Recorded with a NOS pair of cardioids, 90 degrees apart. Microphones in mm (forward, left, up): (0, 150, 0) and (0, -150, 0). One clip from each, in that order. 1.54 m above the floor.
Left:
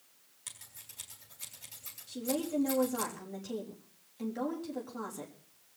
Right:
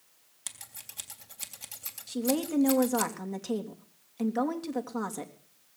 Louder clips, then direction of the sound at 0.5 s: Right 5 dB; 65° right.